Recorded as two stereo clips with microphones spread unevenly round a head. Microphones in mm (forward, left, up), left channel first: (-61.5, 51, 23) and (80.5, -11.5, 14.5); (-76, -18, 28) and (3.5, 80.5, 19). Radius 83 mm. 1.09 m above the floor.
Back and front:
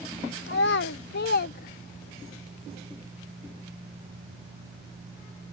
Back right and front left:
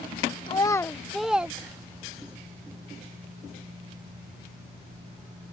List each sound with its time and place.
0.5 s a child speaking: straight behind; by 2.4 s 110° left